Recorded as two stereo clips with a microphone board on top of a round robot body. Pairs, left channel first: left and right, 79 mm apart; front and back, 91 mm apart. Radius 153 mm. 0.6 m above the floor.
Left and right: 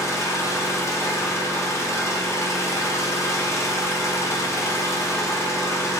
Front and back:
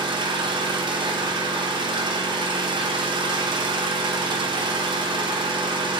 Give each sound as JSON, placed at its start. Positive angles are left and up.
{"t": 0.0, "sound": "an engine running", "azimuth_deg": 145, "distance_m": 1.2}